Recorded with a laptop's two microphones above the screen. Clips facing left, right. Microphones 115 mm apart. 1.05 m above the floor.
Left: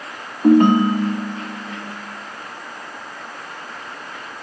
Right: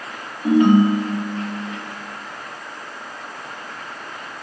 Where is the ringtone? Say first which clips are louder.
Left 2 dB; 55° left (ahead or behind), 0.9 m.